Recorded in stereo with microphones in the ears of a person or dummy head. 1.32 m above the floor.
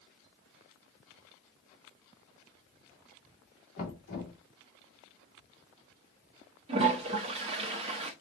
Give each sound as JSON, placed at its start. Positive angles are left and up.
{"t": 3.8, "sound": "knocking", "side_deg": 60, "distance_m": 2.0}
{"t": 6.7, "sound": "a toilet flushing", "side_deg": -30, "distance_m": 1.0}